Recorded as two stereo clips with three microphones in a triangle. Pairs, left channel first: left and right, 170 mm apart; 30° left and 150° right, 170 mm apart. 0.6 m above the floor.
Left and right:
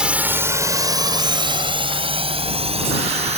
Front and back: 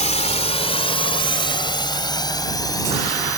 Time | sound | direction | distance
0.0 | a drone | 5° right | ?